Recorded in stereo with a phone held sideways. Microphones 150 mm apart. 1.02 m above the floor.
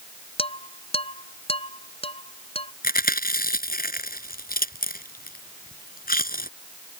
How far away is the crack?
I don't hear a crack.